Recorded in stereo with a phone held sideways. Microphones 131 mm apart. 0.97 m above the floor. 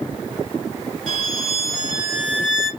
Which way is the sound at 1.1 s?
5° right (ahead or behind).